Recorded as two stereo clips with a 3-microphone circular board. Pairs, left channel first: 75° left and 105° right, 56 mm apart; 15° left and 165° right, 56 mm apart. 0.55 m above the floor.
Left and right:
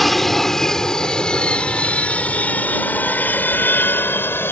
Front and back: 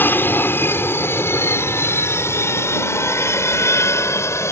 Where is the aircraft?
10° right; by 4.5 s 35° left.